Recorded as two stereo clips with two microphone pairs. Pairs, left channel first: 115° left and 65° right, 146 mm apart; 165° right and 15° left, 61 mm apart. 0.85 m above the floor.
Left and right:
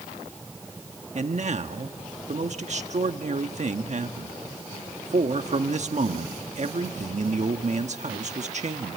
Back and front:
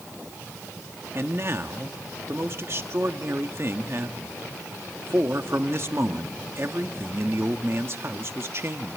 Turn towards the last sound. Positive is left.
turn(degrees=-30)